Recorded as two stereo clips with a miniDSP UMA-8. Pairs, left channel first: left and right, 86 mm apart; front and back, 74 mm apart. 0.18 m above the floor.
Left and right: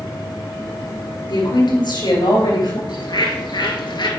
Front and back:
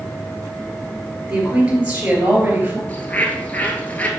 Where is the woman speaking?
100° left, 3.5 m; by 2.8 s 115° left, 3.5 m.